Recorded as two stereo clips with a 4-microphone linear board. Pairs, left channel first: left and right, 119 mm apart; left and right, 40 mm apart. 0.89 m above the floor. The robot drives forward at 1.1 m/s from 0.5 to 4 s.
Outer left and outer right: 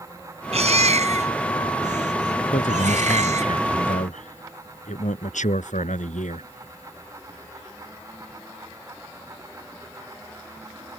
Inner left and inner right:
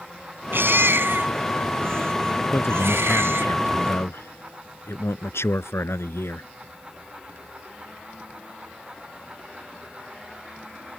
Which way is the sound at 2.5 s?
80° left.